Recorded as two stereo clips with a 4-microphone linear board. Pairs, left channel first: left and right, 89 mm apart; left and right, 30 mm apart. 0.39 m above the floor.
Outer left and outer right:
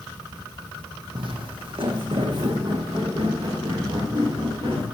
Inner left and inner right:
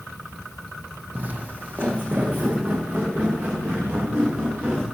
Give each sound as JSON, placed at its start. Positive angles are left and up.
{"t": 1.1, "sound": "footsteps", "side_deg": -65, "distance_m": 0.8}